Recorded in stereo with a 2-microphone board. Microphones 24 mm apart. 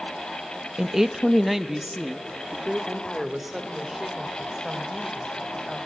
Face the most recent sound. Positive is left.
turn(degrees=-5)  # may be behind; listen again after turning